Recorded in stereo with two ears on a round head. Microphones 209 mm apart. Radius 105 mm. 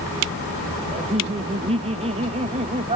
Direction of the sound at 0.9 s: 25° right (ahead or behind).